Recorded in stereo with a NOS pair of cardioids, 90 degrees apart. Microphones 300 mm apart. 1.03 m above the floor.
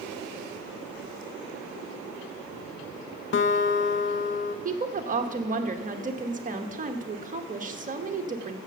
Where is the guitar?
40° left, 0.6 m.